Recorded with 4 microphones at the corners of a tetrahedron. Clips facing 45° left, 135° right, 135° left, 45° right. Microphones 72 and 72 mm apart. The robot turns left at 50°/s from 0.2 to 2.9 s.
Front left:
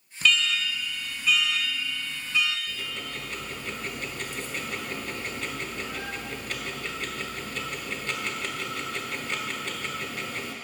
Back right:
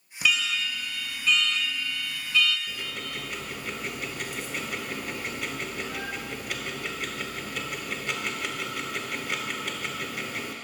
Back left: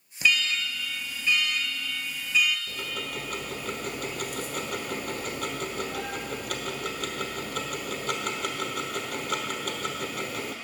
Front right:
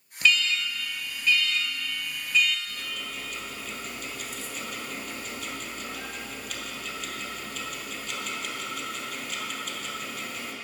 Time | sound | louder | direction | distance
0.2 | an alarm | front left 2 dB, front right 1 dB | 175° left | 0.8 m
2.7 | ticking | even, back left 3 dB | 165° left | 1.0 m